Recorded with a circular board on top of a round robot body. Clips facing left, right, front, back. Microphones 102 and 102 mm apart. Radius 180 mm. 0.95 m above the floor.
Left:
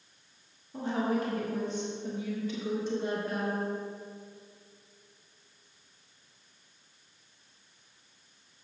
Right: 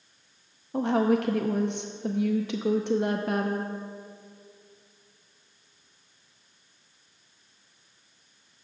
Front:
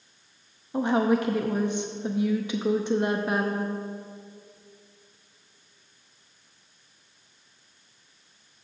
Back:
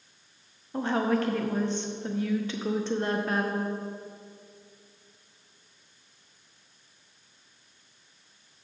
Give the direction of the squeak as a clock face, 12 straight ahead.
No squeak in this recording.